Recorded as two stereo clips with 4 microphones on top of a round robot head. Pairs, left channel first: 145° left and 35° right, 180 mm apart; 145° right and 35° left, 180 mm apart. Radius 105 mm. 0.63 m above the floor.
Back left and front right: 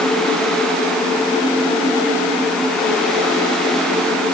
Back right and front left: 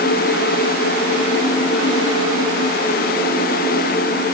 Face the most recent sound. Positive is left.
No sound to turn to.